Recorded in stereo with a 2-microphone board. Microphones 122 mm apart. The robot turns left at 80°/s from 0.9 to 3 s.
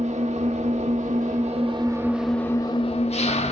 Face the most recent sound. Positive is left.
turn(degrees=120)